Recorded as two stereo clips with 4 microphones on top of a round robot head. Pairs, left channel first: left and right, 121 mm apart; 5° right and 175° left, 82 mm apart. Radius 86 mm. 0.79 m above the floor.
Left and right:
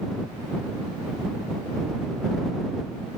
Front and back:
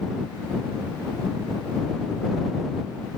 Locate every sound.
Only background noise.